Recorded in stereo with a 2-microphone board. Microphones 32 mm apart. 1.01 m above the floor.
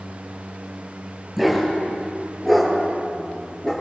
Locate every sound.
1.4 s a dog barking: centre (ahead or behind), 9.5 m; by 3.7 s 20° left (ahead or behind), 9 m